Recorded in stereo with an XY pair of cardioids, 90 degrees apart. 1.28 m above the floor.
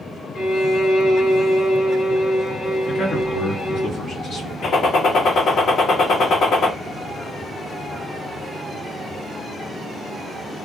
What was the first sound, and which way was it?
A violin, 65° left.